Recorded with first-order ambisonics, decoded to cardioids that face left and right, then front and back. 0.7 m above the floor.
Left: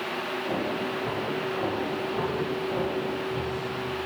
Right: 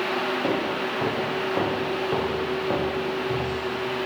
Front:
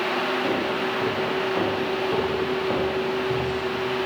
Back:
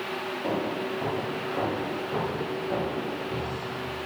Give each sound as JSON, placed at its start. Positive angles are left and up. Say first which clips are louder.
{"t": 0.4, "sound": "footsteps", "louder": "right 4 dB, front 5 dB", "azimuth_deg": -80, "distance_m": 4.0}